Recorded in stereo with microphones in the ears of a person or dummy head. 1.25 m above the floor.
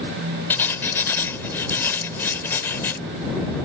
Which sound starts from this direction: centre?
Writing, at 0.5 s.